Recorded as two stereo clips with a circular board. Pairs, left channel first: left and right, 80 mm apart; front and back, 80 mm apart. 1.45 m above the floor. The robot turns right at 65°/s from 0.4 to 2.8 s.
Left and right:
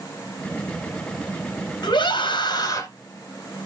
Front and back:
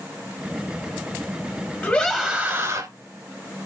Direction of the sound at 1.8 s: 60° left.